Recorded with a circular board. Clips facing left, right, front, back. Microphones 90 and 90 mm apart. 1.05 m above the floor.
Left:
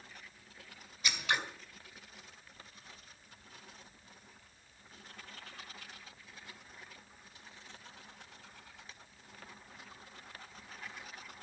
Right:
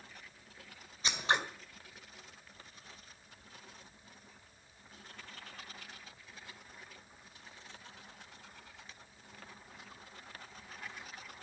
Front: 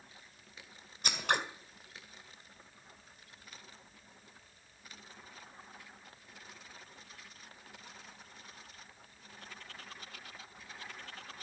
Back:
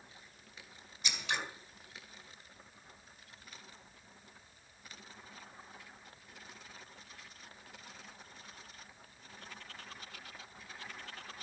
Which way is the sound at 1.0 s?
35° right.